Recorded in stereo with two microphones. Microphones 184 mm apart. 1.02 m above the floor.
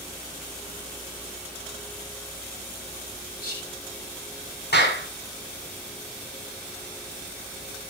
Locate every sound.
3.4 s whispering: 55° left (ahead or behind), 3.5 m
4.7 s a clap: 65° left (ahead or behind), 5.5 m